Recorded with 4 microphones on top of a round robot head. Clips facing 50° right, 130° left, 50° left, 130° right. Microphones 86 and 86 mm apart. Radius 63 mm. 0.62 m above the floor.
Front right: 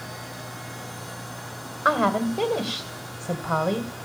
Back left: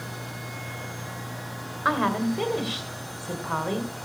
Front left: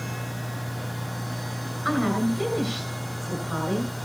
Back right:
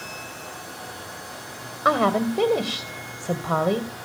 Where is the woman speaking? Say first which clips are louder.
Front right 3 dB, back right 4 dB; 115° right, 2 m.